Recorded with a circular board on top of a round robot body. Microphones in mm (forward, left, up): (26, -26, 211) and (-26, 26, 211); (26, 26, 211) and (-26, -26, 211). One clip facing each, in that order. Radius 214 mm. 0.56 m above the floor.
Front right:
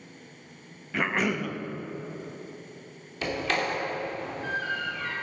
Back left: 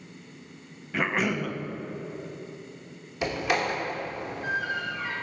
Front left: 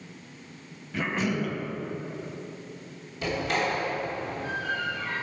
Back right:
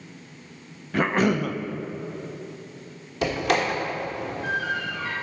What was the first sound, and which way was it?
A cough, 135° right.